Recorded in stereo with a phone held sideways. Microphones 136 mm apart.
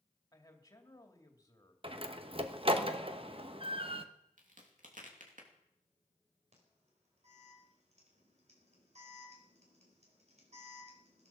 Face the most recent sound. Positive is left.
turn(degrees=-60)  # may be behind; listen again after turning